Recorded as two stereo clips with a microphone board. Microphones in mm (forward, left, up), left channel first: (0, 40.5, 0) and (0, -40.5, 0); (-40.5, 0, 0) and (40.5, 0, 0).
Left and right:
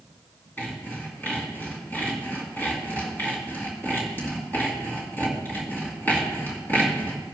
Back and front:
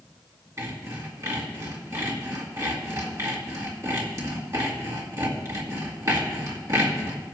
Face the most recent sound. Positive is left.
turn(degrees=35)